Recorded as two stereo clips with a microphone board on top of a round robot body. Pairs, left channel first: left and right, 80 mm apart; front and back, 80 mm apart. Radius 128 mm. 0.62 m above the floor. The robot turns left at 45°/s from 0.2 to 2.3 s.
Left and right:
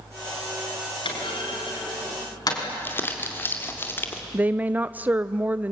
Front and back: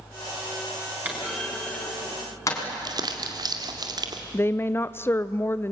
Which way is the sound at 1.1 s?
110° left.